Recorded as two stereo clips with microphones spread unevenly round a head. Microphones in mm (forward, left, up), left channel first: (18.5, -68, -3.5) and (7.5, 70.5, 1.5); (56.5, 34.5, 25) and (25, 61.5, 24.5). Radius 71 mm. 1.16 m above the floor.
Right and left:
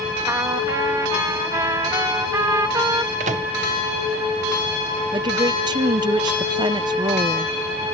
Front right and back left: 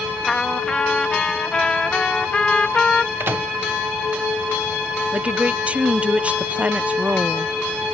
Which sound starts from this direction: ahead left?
A trumpet, at 0.3 s.